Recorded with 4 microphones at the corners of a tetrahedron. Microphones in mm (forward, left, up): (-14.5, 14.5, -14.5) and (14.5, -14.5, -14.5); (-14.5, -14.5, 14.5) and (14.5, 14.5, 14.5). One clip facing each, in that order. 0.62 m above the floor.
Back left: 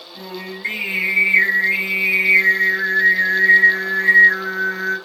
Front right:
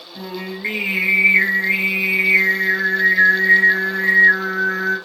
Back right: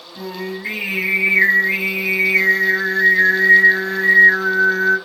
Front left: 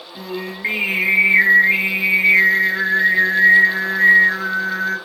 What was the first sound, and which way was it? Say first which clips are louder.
Singing: front right 3 dB, back right 1 dB; 10° left.